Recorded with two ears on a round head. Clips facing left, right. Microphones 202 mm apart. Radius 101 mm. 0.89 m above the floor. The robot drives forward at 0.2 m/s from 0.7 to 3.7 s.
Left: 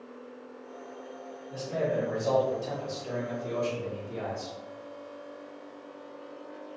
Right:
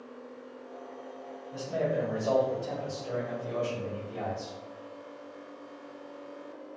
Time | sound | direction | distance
1.5 | a man speaking | 65° left (ahead or behind) | 1.5 m